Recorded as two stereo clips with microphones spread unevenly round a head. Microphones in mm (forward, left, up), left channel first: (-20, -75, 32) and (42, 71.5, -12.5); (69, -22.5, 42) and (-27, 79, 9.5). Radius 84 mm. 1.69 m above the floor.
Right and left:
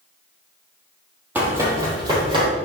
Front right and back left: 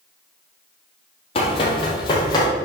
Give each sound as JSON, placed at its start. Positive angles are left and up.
{"t": 1.4, "sound": "running footsteps", "azimuth_deg": -20, "distance_m": 3.0}